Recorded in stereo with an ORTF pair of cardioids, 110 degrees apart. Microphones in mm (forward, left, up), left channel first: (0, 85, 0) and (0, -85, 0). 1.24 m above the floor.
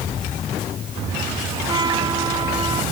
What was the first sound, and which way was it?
A trumpet, 25° right.